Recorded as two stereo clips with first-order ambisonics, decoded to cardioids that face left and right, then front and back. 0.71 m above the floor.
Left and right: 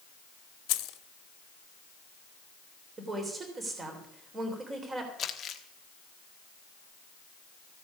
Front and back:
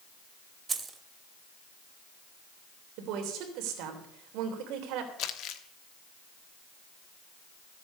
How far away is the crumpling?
About 1.2 m.